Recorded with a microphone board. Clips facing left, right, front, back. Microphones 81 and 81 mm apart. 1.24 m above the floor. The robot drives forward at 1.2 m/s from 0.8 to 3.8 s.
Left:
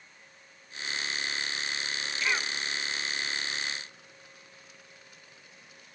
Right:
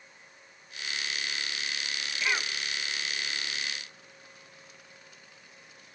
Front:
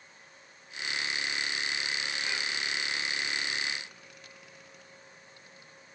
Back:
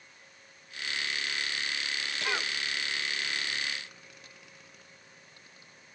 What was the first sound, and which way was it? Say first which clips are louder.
A cough: even, back 3 dB; 175° right.